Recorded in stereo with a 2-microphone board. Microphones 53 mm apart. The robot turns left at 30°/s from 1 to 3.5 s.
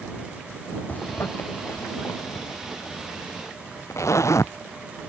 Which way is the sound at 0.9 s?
35° left (ahead or behind).